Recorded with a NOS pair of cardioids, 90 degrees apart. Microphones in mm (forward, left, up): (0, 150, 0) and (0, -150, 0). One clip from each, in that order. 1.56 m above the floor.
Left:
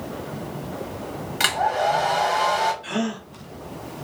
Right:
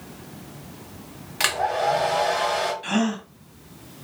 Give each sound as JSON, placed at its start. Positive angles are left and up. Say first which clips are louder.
{"t": 1.4, "sound": "a hair dryer", "louder": "left 1 dB", "azimuth_deg": -5, "distance_m": 1.1}
{"t": 2.8, "sound": "a gasp", "louder": "right 2 dB", "azimuth_deg": -60, "distance_m": 1.0}